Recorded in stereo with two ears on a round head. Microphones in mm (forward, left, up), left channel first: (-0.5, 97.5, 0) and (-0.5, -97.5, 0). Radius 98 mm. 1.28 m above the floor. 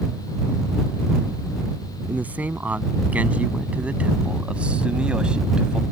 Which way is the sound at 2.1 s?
10° right (ahead or behind).